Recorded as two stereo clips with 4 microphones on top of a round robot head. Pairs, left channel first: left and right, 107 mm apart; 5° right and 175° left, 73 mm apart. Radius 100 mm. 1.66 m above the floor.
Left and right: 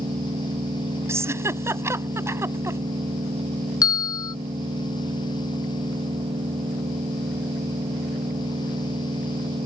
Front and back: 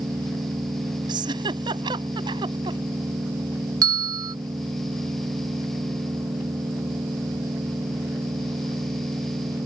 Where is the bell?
145° left.